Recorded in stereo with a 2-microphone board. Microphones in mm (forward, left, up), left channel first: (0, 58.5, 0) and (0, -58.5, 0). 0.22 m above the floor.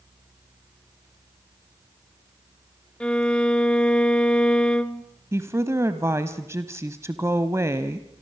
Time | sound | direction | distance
3.0 | a violin | 10° left (ahead or behind) | 0.9 m
5.3 | a woman speaking | 25° right (ahead or behind) | 1.1 m